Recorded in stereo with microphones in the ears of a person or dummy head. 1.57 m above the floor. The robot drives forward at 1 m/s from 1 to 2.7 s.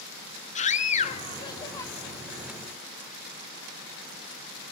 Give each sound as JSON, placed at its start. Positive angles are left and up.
{"t": 0.6, "sound": "a scream", "side_deg": 35, "distance_m": 0.9}